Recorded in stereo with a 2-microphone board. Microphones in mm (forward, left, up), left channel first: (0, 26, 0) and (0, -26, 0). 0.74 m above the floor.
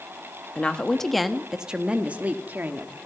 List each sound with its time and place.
0.6 s a woman speaking: 25° left (ahead or behind), 1.1 m; by 2.9 s 40° right (ahead or behind), 1.6 m